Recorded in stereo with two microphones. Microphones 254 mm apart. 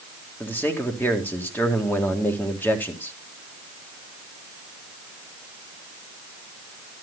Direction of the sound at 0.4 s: 10° left (ahead or behind).